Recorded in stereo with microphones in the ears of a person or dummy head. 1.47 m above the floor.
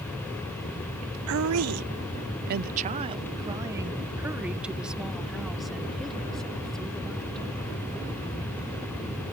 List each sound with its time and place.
1.3 s a woman speaking: 65° right (ahead or behind); by 7.5 s 5° left (ahead or behind)